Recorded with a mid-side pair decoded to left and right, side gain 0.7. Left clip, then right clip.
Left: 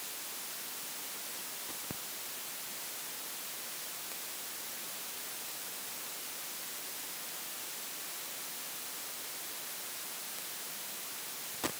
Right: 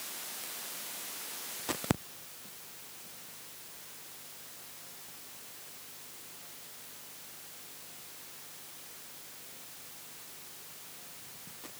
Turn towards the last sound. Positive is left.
No sound to turn to.